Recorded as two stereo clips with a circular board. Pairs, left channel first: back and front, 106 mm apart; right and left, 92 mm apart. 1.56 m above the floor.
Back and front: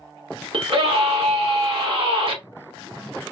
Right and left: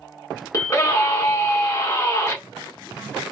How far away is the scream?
About 1.5 m.